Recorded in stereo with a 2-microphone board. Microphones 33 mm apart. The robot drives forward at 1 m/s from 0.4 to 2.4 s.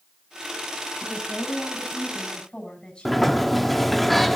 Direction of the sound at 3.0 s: 5° left (ahead or behind).